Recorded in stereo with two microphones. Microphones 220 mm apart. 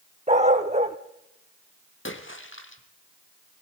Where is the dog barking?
30° right (ahead or behind), 1.3 m.